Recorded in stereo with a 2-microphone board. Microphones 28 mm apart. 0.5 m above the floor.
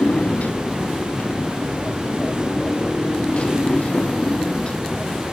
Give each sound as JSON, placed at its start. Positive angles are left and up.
{"t": 0.0, "sound": "a motorcycle", "side_deg": 65}